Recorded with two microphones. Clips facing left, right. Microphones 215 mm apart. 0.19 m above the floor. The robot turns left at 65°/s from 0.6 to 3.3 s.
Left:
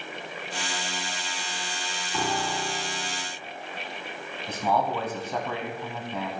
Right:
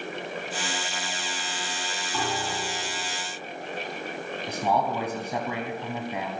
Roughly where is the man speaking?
Centre.